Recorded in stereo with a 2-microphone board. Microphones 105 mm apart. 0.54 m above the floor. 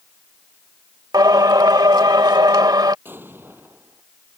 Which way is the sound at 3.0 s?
20° right (ahead or behind).